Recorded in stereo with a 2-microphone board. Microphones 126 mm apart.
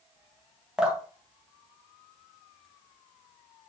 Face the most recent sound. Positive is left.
turn(degrees=-5)  # may be behind; listen again after turning